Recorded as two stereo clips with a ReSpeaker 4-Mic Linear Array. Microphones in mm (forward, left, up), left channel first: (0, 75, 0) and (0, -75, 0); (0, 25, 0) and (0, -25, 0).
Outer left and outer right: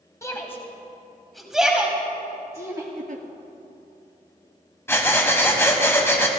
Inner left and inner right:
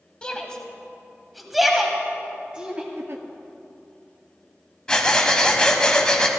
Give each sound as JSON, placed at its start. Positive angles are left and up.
{"t": 0.2, "sound": "a shout", "side_deg": 20, "distance_m": 1.5}
{"t": 3.0, "sound": "a giggle", "side_deg": -65, "distance_m": 1.0}
{"t": 4.9, "sound": "breathing", "side_deg": 15, "distance_m": 1.4}